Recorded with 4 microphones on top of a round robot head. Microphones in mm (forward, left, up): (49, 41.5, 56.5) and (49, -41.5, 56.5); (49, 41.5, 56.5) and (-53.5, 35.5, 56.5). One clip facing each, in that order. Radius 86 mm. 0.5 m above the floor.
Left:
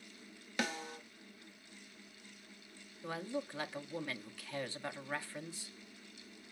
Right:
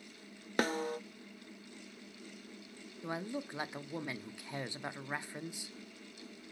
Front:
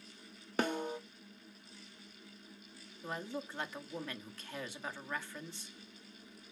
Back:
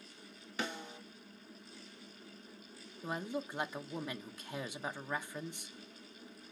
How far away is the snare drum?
About 0.9 m.